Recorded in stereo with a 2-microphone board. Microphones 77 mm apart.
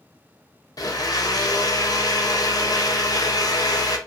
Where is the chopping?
I don't hear chopping.